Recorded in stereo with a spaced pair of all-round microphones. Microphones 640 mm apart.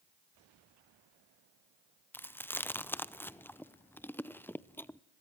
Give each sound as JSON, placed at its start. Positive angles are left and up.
{"t": 2.1, "sound": "chewing", "side_deg": 5, "distance_m": 0.6}